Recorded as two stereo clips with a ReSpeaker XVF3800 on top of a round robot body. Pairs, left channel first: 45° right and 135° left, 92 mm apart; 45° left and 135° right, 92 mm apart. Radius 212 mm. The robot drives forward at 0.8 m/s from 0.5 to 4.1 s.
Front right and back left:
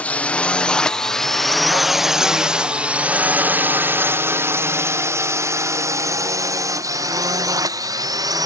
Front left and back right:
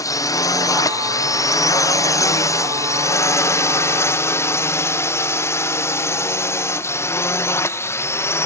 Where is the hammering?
No hammering in this recording.